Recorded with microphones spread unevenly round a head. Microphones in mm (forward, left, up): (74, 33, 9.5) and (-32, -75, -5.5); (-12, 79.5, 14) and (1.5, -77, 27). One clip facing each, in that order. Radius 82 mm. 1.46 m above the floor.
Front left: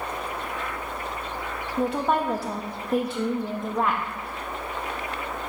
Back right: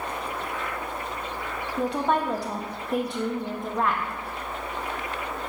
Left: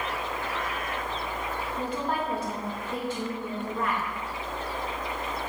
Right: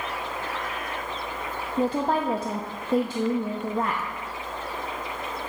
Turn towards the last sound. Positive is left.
turn(degrees=-35)